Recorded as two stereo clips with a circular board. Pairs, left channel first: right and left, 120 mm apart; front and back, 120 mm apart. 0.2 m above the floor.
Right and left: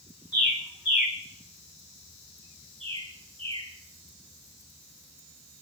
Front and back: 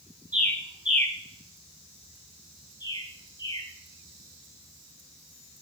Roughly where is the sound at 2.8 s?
Ahead left.